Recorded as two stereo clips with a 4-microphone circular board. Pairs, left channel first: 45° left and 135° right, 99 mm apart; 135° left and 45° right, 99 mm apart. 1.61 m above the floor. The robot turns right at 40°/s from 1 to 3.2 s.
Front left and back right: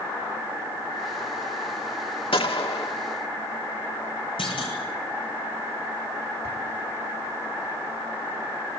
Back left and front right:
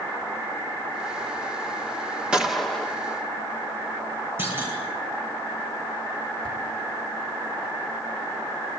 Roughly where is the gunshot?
Ahead left.